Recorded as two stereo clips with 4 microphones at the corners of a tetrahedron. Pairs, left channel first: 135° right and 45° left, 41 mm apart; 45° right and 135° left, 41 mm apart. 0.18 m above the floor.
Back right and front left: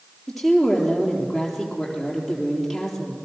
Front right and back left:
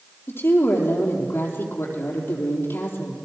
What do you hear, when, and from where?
0.3 s a woman speaking: 45° right, 4.5 m